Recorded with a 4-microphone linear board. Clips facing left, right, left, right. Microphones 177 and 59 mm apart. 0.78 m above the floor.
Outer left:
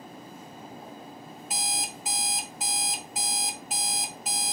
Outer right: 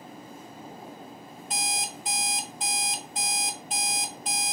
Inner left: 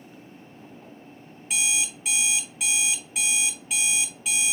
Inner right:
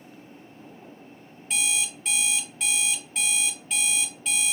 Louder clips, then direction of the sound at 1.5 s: Outer right 2 dB, inner left 1 dB; 5° left (ahead or behind).